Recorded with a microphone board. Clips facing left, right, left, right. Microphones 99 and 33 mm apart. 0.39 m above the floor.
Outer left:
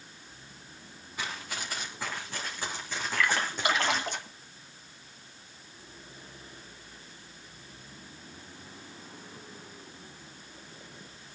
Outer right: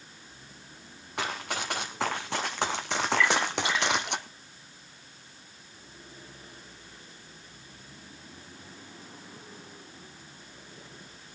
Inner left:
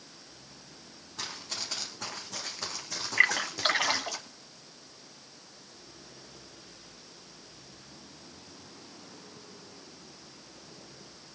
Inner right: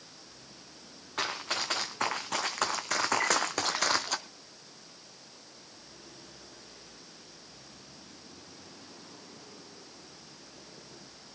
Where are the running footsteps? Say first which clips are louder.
Outer right 5 dB, inner right 6 dB; 65° right (ahead or behind), 2.5 m; by 4.2 s 70° right (ahead or behind), 1.0 m.